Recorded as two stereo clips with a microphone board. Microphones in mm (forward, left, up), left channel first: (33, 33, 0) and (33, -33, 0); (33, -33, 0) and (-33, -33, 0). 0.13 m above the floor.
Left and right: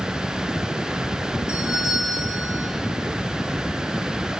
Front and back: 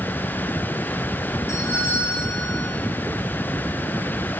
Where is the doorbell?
55° left, 6.5 m.